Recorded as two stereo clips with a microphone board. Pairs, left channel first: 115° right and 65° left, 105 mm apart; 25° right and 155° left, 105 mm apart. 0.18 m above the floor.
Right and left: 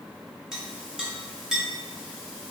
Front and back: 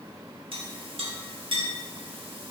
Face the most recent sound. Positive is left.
turn(degrees=150)